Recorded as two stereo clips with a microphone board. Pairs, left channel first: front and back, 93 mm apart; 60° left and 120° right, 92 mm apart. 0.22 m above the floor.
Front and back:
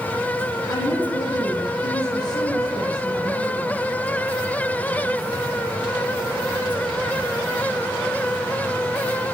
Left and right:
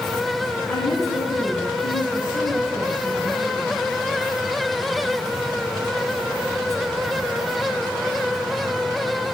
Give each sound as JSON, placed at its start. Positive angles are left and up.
{"t": 0.7, "sound": "a woman speaking", "azimuth_deg": 35, "distance_m": 3.0}